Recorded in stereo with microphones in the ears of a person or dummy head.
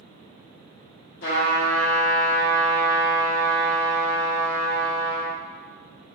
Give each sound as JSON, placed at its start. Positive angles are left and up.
{"t": 1.2, "sound": "a trumpet", "side_deg": 55, "distance_m": 1.3}